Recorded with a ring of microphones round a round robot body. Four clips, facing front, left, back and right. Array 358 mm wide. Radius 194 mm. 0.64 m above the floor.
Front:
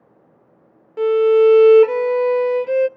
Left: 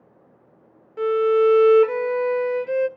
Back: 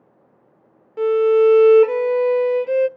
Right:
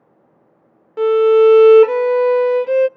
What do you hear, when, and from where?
1.0 s a violin: 85° right, 0.6 m